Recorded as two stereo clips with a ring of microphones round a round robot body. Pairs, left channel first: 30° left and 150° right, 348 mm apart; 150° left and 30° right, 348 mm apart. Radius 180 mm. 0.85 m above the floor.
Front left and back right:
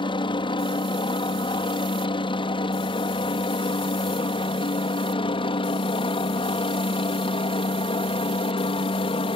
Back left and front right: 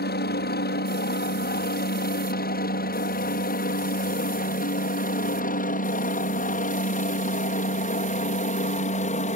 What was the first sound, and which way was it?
A helicopter, 100° left.